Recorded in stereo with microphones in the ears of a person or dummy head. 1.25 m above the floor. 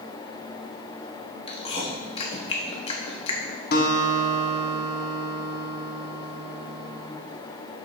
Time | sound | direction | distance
1.5 | chewing | 30° left (ahead or behind) | 1.0 m
3.7 | a guitar | 55° left (ahead or behind) | 1.2 m